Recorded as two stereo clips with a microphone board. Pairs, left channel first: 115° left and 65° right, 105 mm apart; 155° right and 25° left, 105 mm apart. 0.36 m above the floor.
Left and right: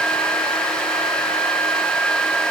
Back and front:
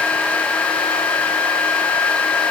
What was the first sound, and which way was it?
Only background noise.